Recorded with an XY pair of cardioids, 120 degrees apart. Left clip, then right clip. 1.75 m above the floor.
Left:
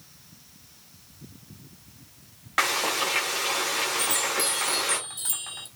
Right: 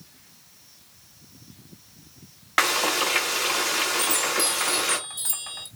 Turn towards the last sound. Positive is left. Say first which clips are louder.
# right 2 dB
turn(degrees=-10)